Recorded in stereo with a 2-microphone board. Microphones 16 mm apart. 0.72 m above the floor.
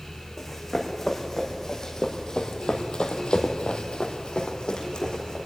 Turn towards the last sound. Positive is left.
turn(degrees=45)  # may be behind; listen again after turning